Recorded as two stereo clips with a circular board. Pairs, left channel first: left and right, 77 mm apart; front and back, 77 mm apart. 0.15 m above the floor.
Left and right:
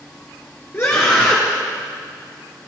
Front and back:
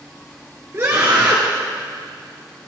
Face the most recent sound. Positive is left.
turn(degrees=135)